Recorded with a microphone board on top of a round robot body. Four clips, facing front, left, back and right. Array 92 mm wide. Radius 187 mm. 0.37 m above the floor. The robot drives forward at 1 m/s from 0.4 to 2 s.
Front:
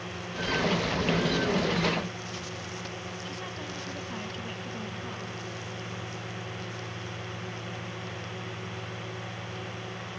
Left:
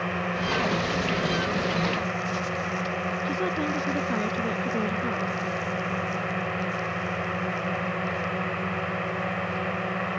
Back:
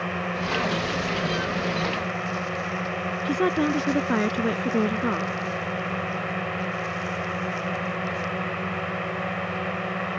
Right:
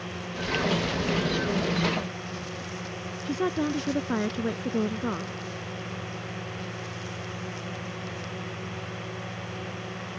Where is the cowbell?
No cowbell in this recording.